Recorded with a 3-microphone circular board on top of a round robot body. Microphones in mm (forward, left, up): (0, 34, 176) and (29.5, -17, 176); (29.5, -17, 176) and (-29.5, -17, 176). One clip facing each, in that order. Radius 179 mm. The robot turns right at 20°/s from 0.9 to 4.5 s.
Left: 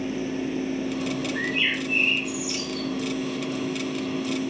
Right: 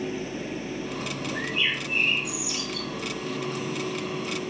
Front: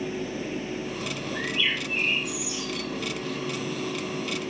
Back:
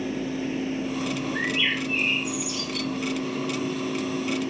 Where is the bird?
150° left, 8.5 m; by 2.9 s straight behind, 8.5 m.